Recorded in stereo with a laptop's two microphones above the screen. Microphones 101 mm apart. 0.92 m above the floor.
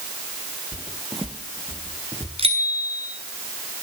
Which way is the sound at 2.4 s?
75° right (ahead or behind).